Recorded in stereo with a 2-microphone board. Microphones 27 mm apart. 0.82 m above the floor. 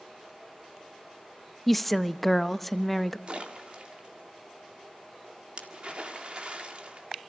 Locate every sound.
1.7 s a woman speaking: 5° left (ahead or behind), 0.6 m
3.3 s a splash: 45° right (ahead or behind), 1.8 m